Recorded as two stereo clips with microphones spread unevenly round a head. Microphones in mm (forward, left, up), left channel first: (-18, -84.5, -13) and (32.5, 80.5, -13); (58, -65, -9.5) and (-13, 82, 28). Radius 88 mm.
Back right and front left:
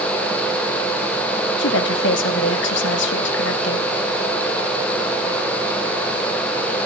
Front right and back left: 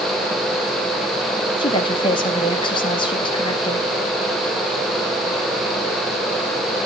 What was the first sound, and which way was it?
A woman speaking, 130° right.